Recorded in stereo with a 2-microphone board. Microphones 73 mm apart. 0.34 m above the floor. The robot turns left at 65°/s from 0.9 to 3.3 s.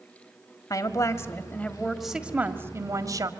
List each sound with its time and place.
0.7 s a woman speaking: 70° left, 1.8 m; by 3.3 s 85° right, 1.8 m